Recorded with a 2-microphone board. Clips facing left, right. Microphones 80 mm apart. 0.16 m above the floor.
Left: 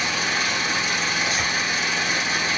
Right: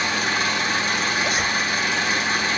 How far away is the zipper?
About 3.5 m.